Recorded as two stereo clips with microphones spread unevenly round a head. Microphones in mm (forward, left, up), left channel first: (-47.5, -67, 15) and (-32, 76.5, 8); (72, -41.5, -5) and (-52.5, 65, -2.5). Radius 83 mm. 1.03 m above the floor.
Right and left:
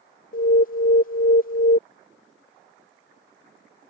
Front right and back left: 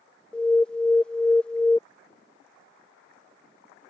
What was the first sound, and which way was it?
An alarm, 125° right.